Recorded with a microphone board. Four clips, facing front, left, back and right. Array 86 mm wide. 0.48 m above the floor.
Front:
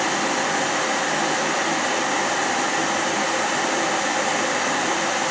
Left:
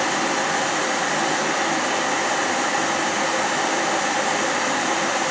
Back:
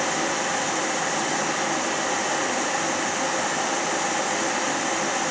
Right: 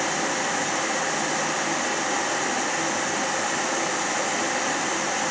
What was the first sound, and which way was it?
Only background noise.